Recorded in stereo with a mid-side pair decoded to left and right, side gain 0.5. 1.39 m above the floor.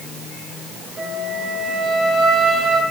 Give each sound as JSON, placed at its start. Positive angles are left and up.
{"t": 1.0, "sound": "a flute", "azimuth_deg": -40, "distance_m": 3.0}